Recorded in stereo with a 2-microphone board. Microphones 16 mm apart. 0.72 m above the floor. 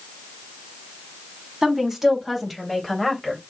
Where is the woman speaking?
25° right (ahead or behind), 2.5 m; by 3.4 s 5° left (ahead or behind), 4 m.